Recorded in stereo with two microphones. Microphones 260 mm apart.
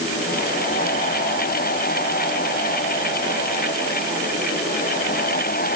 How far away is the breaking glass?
No breaking glass in this recording.